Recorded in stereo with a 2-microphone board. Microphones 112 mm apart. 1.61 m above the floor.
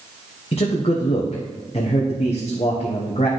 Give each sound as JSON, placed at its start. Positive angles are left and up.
{"t": 0.5, "sound": "a man speaking", "side_deg": 55, "distance_m": 1.0}